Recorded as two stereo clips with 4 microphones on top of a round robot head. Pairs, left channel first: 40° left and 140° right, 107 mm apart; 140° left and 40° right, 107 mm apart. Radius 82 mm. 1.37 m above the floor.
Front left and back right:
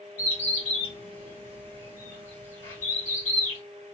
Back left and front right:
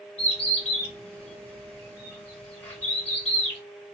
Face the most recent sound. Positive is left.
turn(degrees=65)